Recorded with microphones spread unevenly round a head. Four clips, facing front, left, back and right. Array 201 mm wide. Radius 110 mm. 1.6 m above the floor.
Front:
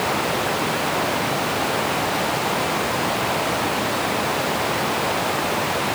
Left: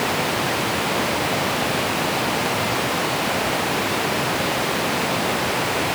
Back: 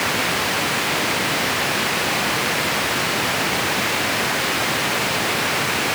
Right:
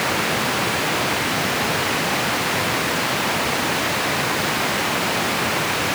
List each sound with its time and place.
Only background noise.